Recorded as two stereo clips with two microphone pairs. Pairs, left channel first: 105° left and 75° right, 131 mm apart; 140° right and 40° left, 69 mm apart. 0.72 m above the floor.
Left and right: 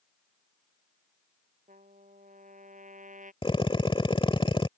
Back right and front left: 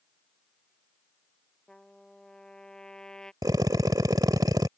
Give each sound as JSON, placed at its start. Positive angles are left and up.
{"t": 1.7, "sound": "a trumpet", "azimuth_deg": -60}
{"t": 3.4, "sound": "a drill", "azimuth_deg": 55}